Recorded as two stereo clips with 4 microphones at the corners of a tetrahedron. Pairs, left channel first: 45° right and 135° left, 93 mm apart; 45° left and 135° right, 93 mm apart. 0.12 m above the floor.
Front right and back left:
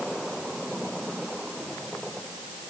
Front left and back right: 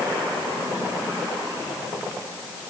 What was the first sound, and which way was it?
Only background noise.